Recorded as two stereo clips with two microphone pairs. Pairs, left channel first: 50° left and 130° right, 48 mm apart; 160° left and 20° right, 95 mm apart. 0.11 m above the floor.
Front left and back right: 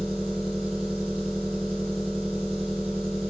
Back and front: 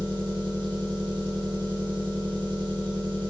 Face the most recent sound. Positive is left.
turn(degrees=-35)